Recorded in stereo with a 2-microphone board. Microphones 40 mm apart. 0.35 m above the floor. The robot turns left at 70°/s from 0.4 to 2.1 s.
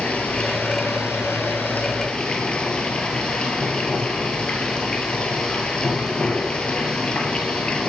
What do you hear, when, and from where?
0.0 s running water: 140° left, 0.9 m; by 7.9 s 20° left, 0.9 m